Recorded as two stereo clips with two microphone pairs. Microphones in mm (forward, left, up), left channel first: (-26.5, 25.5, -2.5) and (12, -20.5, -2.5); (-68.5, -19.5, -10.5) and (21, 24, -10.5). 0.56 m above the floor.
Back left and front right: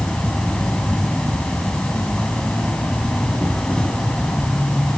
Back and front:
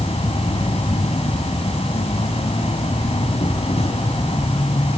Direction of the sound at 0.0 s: 150° right.